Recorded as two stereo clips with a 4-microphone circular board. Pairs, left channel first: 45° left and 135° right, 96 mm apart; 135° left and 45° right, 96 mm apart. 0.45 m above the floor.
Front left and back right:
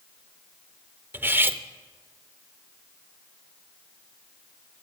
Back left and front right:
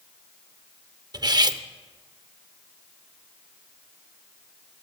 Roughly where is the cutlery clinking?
Right.